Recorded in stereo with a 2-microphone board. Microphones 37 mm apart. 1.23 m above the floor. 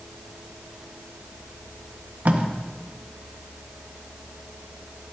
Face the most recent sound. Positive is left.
turn(degrees=-55)  # may be behind; listen again after turning